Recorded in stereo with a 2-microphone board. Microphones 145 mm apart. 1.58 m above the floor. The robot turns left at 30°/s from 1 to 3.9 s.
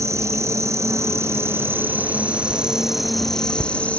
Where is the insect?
20° right (ahead or behind), 0.7 m; by 4.0 s 10° left (ahead or behind), 0.7 m.